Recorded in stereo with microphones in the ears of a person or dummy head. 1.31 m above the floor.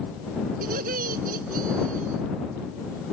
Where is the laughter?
55° right (ahead or behind); by 2.2 s 50° right (ahead or behind).